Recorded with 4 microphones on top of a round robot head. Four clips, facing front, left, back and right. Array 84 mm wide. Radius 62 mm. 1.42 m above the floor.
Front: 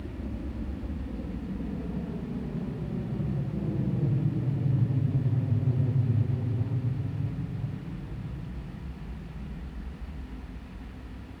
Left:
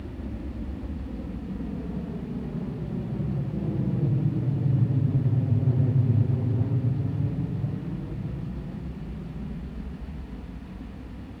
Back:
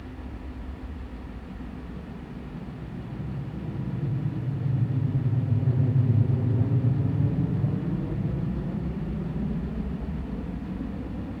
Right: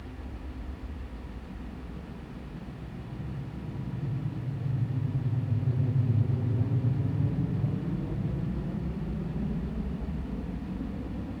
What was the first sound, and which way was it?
An aircraft, 50° left.